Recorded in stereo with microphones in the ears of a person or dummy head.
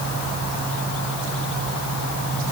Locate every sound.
Only background noise.